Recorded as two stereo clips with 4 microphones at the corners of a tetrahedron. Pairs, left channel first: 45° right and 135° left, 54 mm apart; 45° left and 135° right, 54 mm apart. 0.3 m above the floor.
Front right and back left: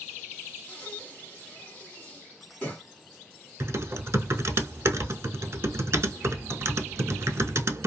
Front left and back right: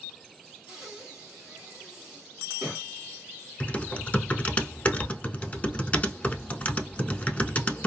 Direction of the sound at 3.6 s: 110° left.